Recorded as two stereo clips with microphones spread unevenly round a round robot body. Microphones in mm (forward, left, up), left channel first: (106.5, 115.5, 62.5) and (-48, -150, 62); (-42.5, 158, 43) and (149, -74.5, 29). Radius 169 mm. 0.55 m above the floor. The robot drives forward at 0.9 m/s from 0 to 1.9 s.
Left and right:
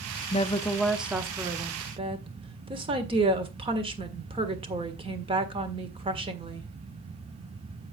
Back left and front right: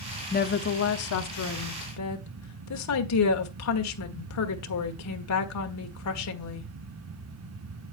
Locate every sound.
0.3 s a woman speaking: 100° left, 0.8 m; by 6.7 s 165° left, 1.7 m